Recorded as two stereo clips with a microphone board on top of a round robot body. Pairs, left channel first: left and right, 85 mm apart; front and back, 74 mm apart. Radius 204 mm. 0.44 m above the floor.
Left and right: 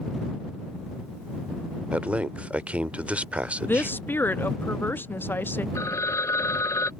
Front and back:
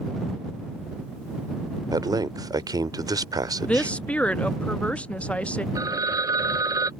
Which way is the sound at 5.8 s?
145° left.